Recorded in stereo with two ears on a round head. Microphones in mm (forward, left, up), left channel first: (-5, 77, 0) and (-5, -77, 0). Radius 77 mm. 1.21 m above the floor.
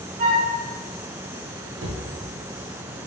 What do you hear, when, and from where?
0.2 s a flute: 50° right (ahead or behind), 0.8 m
1.8 s a cupboard door: 75° right (ahead or behind), 0.7 m